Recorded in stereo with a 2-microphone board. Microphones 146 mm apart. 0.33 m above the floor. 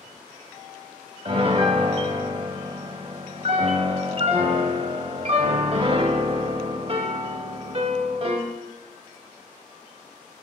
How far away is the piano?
About 0.6 m.